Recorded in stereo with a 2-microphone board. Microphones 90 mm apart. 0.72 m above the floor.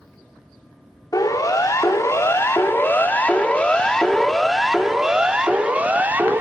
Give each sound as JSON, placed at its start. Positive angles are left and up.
{"t": 1.1, "sound": "a siren", "side_deg": 45, "distance_m": 3.0}